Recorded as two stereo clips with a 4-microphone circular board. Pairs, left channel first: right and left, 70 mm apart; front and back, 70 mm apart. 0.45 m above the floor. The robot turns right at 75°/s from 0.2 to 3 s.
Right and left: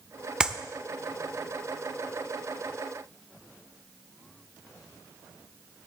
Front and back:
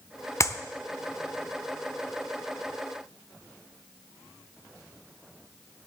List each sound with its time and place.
0.4 s a clap: 15° left, 0.7 m; by 0.6 s 25° left, 0.7 m